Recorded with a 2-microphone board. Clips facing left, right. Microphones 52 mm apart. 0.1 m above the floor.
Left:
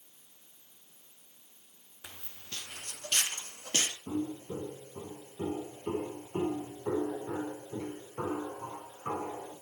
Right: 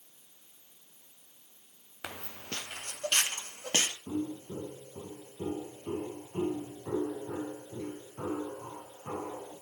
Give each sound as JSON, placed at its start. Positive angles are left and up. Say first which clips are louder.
{"t": 2.0, "sound": "footsteps", "louder": "right 8 dB", "side_deg": -80, "distance_m": 0.6}
{"t": 4.1, "sound": "footsteps", "louder": "even", "side_deg": 35, "distance_m": 3.5}